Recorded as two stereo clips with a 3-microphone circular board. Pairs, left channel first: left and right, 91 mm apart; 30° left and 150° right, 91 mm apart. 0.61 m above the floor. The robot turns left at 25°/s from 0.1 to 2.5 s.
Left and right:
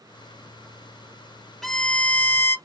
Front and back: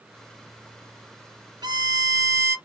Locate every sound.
1.6 s a violin: 175° left, 0.7 m; by 2.6 s 155° left, 0.7 m